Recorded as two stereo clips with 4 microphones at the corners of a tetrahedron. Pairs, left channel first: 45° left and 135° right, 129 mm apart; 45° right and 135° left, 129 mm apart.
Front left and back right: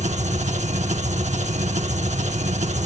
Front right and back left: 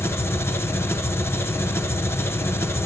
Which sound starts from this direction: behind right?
An engine running, at 0.0 s.